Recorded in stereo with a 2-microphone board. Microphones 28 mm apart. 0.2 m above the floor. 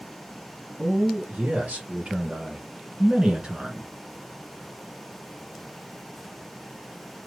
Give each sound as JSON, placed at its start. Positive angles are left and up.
{"t": 0.8, "sound": "a man speaking", "side_deg": -60, "distance_m": 2.5}